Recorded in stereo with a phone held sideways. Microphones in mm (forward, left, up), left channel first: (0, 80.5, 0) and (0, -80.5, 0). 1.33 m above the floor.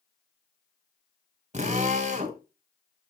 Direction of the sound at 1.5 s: 50° right (ahead or behind).